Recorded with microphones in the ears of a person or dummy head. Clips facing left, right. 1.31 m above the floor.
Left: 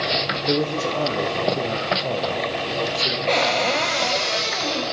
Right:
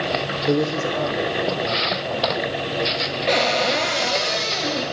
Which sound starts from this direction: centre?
A cupboard door, at 3.3 s.